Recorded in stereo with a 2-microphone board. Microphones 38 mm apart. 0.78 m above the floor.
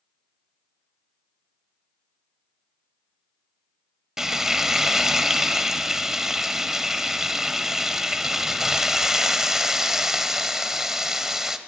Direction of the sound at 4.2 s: 15° right (ahead or behind).